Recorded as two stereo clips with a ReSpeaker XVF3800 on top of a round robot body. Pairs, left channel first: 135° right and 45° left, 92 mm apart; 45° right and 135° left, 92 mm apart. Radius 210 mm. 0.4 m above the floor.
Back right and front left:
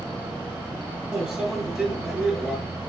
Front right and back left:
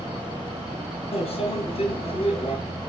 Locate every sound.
1.1 s a microwave: 35° right, 6.5 m